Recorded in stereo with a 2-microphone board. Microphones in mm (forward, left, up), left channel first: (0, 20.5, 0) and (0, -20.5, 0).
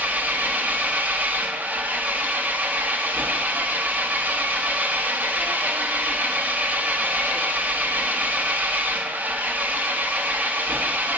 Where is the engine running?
50° right (ahead or behind), 0.7 m.